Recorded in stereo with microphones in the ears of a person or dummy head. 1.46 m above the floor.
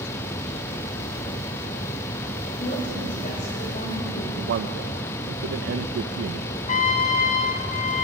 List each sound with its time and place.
2.6 s a woman speaking: 40° left (ahead or behind), 7.5 m
4.4 s a man speaking: 65° right (ahead or behind), 1.0 m
6.7 s a trumpet: 40° left (ahead or behind), 1.6 m